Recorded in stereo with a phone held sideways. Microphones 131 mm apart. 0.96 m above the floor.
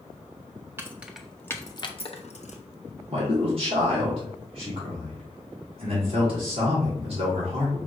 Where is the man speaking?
45° right (ahead or behind), 2 m.